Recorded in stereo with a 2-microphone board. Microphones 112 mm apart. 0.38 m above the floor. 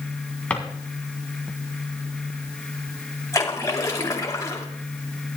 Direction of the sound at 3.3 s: 30° left (ahead or behind).